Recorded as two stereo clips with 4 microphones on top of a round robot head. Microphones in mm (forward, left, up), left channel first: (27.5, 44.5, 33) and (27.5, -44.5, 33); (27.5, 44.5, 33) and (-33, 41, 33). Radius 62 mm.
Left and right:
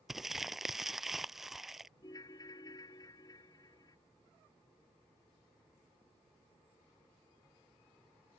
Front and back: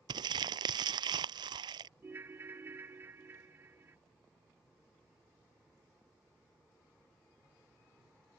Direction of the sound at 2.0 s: 135° left.